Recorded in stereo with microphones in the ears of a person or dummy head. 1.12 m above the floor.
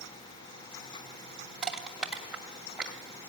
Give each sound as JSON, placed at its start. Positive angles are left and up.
{"t": 1.6, "sound": "crushing", "side_deg": -5, "distance_m": 2.5}